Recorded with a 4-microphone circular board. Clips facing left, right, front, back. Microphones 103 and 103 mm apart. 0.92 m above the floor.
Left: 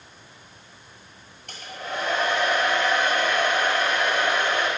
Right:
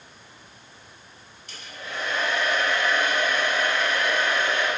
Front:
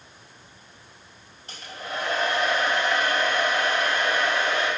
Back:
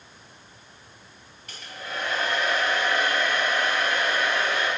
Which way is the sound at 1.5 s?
60° left.